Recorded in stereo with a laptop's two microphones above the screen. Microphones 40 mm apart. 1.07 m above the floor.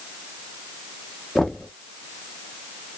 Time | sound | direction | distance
1.4 | knocking | 10° left (ahead or behind) | 0.7 m